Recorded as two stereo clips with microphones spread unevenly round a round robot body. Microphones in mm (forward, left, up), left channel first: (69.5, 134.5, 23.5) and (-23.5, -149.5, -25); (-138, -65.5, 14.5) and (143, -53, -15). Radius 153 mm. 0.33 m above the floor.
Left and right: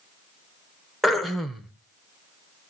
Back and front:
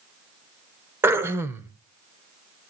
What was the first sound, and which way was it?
Throat clearing, 45° right.